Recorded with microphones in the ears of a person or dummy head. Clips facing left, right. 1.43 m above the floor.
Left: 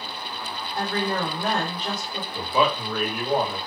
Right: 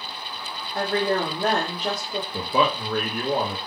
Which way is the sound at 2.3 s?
45° right (ahead or behind).